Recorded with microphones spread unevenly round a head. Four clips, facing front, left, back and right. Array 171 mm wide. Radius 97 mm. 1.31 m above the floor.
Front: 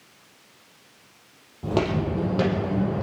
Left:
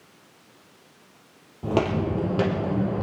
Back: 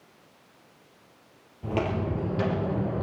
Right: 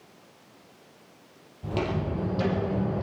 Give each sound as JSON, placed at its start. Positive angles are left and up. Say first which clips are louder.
{"t": 1.6, "sound": "footsteps", "louder": "left 6 dB, front 4 dB", "azimuth_deg": 60, "distance_m": 2.5}